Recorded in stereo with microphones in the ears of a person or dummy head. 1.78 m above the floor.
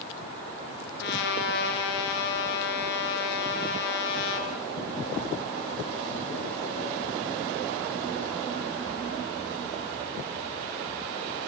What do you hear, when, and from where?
1.0 s a trumpet: 65° left (ahead or behind), 6 m